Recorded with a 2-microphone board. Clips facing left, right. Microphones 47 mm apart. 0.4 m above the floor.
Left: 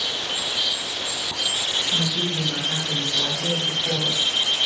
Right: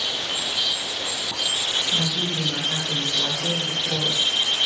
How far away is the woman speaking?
About 1.3 m.